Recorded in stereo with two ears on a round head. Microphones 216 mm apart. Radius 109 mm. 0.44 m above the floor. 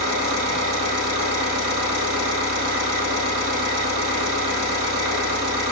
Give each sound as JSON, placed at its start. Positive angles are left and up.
{"t": 0.0, "sound": "an engine running", "side_deg": -80, "distance_m": 4.0}